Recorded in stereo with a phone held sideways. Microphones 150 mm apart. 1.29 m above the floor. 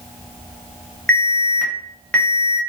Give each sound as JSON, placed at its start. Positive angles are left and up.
{"t": 1.1, "sound": "an alarm", "side_deg": 10, "distance_m": 0.8}